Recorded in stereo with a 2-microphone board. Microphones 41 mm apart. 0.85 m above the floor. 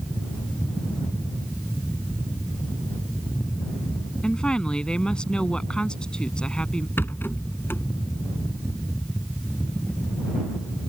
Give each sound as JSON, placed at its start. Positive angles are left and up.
{"t": 4.2, "sound": "a woman speaking", "side_deg": 25}
{"t": 7.0, "sound": "a rattle", "side_deg": 65}